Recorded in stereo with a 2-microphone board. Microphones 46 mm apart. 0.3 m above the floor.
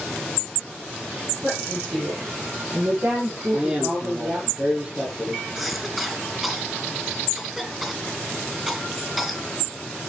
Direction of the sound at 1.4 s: 60° right (ahead or behind).